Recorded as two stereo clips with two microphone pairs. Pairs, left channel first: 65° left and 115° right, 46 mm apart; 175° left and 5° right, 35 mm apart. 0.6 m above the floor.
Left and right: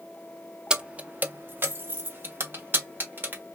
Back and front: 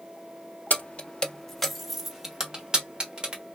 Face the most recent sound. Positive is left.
turn(degrees=-70)